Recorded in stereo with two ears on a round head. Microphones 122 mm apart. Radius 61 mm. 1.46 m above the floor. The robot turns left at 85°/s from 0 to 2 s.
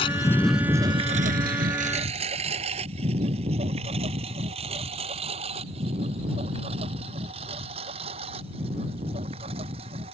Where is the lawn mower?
40° left (ahead or behind); by 10.1 s 45° right (ahead or behind).